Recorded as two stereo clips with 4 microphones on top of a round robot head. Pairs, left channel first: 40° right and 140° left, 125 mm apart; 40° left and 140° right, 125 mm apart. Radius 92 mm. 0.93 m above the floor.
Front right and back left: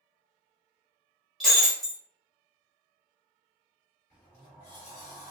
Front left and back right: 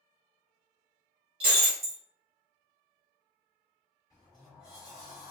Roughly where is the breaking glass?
Behind right.